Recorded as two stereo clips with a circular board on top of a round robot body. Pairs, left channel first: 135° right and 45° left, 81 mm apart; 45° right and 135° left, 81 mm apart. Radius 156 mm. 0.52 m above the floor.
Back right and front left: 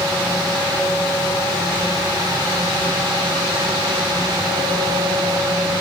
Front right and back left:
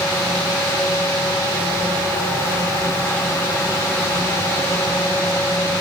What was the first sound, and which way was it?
Only background noise.